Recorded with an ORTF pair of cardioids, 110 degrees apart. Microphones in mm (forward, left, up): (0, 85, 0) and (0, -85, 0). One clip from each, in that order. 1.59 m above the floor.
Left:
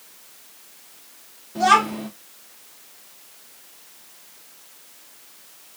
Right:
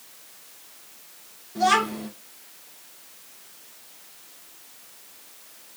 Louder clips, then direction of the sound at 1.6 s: Left 4 dB; 25° left.